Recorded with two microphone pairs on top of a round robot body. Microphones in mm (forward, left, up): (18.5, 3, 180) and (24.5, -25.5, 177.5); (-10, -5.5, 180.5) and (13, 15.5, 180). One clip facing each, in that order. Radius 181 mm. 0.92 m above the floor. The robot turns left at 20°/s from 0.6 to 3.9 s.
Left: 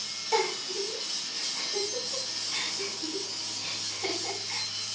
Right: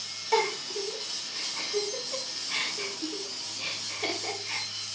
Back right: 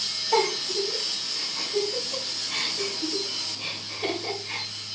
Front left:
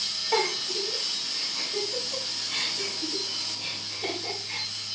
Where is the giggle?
5° right, 2.5 m; by 4.7 s 70° right, 2.5 m.